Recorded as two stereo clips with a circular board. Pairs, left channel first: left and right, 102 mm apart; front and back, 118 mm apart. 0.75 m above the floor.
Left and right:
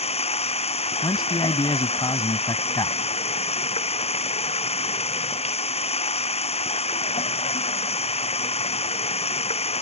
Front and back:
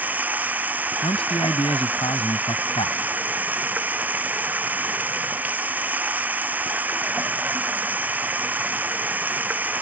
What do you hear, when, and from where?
0.0 s running water: 105° left
1.0 s a man speaking: 40° left